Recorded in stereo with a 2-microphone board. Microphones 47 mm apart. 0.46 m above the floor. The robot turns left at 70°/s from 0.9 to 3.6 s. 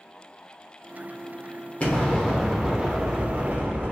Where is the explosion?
45° left, 0.8 m; by 3.9 s 80° right, 0.8 m.